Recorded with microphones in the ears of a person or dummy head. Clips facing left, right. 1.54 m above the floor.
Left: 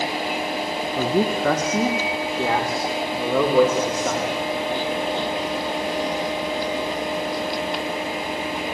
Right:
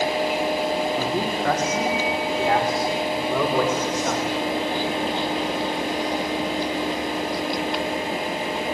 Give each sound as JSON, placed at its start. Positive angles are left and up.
{"t": 1.0, "sound": "a man speaking", "side_deg": 80, "distance_m": 3.0}